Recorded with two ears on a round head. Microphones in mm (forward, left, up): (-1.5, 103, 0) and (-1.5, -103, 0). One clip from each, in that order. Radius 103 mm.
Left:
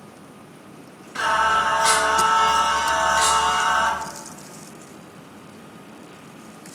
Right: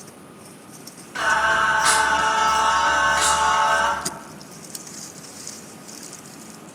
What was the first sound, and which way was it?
Singing, 5° right (ahead or behind).